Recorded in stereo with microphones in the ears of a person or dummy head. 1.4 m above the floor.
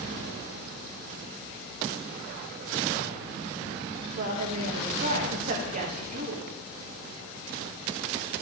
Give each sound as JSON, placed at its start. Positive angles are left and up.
{"t": 4.2, "sound": "a woman speaking", "side_deg": -40, "distance_m": 1.2}